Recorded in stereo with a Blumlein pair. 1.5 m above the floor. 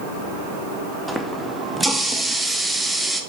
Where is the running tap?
5° right, 1.4 m.